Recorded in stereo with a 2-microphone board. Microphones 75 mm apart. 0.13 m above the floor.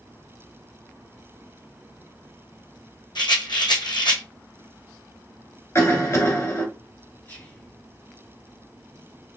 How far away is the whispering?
About 1.8 m.